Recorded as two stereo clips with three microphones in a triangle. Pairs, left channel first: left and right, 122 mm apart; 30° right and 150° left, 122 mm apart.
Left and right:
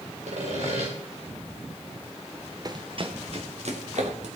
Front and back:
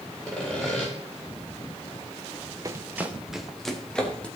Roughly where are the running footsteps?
Behind right.